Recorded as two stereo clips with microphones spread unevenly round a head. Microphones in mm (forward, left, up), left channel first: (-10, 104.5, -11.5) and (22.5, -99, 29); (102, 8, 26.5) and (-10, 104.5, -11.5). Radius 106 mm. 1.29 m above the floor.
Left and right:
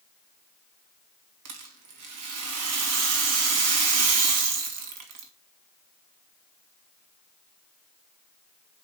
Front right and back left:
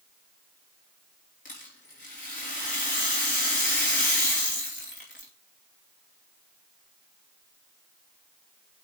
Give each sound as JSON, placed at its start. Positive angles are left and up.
{"t": 1.4, "sound": "a rattle", "azimuth_deg": -100, "distance_m": 2.5}